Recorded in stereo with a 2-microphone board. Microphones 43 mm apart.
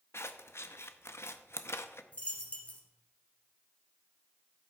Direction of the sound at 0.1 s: 75° left (ahead or behind).